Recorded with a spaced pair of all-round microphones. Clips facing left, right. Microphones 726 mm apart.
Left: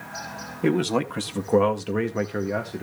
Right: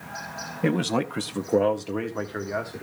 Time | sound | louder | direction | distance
0.6 | a man speaking | left 2 dB | 15° right (ahead or behind) | 0.7 m